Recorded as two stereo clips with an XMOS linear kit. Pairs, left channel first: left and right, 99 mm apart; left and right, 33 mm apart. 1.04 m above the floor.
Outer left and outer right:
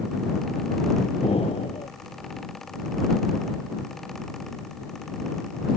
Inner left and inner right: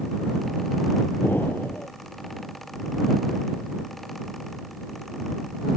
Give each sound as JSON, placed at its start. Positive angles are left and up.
{"t": 1.2, "sound": "an explosion", "side_deg": 90}